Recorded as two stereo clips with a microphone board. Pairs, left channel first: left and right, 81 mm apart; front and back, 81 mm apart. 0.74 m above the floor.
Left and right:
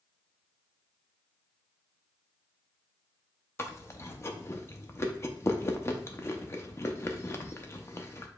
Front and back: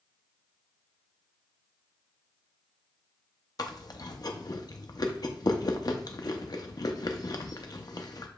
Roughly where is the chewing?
Ahead left.